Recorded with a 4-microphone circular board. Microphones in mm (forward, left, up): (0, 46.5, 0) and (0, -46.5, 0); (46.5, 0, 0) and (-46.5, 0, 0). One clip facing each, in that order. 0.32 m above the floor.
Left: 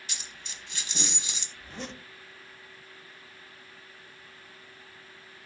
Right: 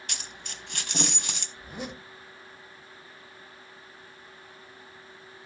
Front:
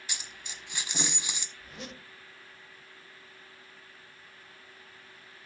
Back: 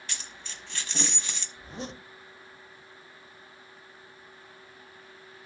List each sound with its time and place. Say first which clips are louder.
0.1 s a dropped coin: right 3 dB, even; 75° right, 1.0 m
1.6 s a zipper: right 2 dB, back 5 dB; 160° right, 0.7 m